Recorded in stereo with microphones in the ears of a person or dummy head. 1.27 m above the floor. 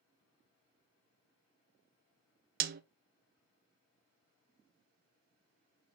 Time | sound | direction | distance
2.6 | a snare drum | 45° right (ahead or behind) | 0.6 m